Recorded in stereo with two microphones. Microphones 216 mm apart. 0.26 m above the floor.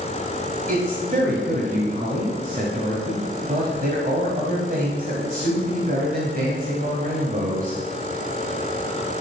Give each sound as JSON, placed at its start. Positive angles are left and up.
{"t": 0.7, "sound": "a man speaking", "side_deg": -40, "distance_m": 1.7}